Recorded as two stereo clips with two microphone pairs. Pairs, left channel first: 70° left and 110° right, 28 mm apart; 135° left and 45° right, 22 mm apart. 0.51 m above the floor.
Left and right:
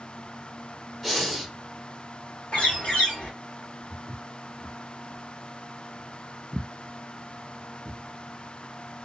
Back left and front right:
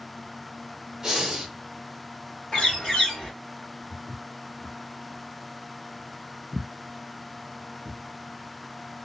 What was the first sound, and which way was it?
Breathing, 5° right.